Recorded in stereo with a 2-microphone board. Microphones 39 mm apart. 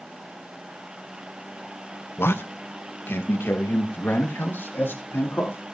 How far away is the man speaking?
About 1.0 m.